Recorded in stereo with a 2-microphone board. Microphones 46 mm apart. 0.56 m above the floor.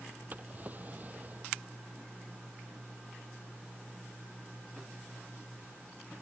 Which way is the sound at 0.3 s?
35° right (ahead or behind).